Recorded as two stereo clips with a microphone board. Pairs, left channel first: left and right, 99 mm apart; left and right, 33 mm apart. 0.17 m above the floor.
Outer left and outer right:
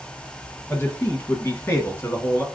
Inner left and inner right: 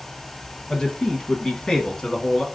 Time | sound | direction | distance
0.7 | a man speaking | 25° left (ahead or behind) | 1.1 m